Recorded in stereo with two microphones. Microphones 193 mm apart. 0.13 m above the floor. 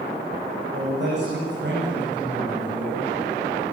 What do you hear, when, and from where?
0.7 s a man speaking: 65° right (ahead or behind), 9 m